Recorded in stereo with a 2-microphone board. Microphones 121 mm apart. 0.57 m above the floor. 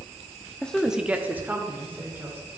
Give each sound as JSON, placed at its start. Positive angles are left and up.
{"t": 0.6, "sound": "a woman speaking", "side_deg": 10, "distance_m": 0.6}